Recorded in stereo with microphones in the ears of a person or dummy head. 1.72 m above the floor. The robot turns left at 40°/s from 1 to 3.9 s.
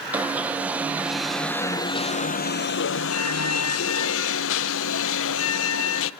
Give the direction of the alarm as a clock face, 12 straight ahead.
6 o'clock.